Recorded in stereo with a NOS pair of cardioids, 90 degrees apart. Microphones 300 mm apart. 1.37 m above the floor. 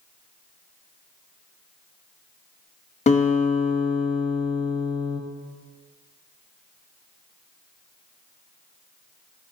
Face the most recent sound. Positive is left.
turn(degrees=20)